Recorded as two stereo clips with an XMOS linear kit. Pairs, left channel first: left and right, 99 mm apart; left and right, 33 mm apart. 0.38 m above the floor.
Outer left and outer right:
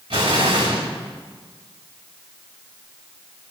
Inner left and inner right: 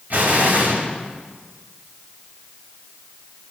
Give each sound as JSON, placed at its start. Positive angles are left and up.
{"t": 0.1, "sound": "an explosion", "side_deg": -65, "distance_m": 3.0}